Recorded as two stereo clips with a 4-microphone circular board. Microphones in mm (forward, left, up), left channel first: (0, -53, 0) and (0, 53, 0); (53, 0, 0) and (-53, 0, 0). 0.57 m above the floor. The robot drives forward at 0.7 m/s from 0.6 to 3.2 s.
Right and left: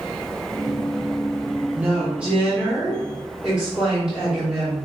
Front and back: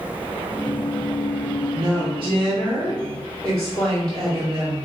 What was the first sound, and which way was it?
A woman speaking, 155° left.